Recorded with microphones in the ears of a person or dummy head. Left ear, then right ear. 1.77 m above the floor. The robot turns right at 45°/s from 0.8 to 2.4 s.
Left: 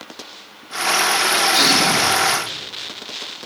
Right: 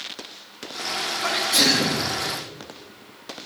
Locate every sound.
1.2 s a sneeze: 160° right, 3.5 m; by 2.1 s 125° right, 3.5 m